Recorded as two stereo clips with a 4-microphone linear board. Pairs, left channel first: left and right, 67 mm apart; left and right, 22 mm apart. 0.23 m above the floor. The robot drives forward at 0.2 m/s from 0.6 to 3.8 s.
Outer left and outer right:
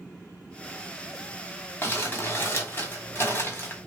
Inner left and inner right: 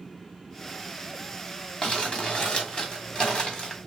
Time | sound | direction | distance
1.8 | crumpling | 35° left (ahead or behind) | 1.5 m